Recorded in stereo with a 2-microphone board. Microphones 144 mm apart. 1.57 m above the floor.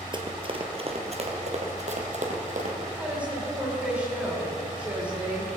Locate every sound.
0.1 s running footsteps: 35° right (ahead or behind), 1.8 m; by 2.9 s 60° right (ahead or behind), 3 m
3.0 s a woman speaking: 10° right (ahead or behind), 6 m